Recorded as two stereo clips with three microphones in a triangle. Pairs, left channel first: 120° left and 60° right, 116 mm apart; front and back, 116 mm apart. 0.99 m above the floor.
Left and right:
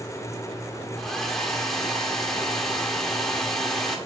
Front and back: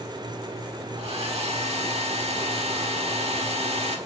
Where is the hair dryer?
150° right, 1.5 m.